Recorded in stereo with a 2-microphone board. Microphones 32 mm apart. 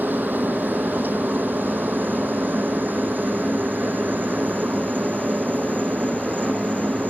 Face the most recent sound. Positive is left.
turn(degrees=-60)  # may be behind; listen again after turning